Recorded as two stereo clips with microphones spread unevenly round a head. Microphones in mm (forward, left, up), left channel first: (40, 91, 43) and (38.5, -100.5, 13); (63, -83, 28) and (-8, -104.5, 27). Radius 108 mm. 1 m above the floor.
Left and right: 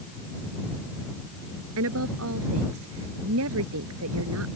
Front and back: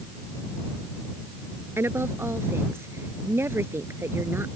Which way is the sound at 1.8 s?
105° right.